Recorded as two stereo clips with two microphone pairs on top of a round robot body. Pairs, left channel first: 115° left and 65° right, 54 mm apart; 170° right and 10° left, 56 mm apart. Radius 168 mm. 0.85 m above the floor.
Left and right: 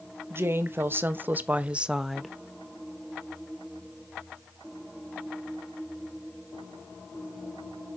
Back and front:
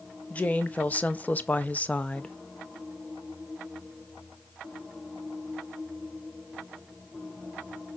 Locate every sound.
0.3 s a woman speaking: 110° right, 1.3 m; by 2.4 s 120° left, 0.7 m